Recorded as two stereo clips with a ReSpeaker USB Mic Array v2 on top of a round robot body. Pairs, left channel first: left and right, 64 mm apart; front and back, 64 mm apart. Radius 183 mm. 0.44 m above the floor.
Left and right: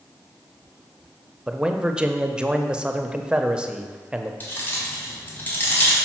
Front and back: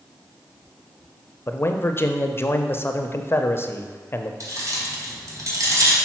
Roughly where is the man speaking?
Ahead right.